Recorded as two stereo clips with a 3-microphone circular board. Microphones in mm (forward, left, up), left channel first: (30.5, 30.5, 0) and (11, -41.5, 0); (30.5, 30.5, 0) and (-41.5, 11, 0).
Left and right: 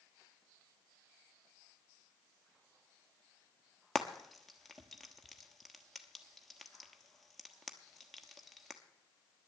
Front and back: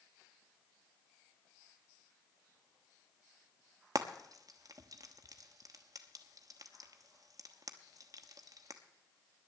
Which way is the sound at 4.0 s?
165° left.